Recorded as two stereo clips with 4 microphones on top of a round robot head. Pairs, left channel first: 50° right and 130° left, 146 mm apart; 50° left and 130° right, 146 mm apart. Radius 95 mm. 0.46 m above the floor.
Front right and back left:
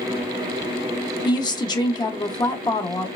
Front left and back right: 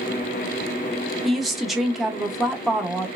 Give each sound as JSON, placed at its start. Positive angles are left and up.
{"t": 1.2, "sound": "a woman speaking", "azimuth_deg": -45, "distance_m": 0.7}